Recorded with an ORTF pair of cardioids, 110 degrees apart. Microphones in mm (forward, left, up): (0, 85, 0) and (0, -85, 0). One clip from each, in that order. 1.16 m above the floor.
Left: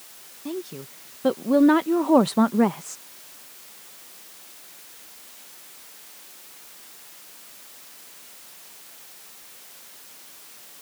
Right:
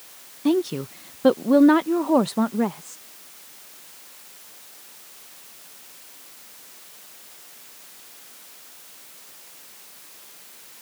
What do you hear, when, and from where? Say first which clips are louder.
0.5 s a woman speaking: right 11 dB; 55° right; by 3.0 s 30° left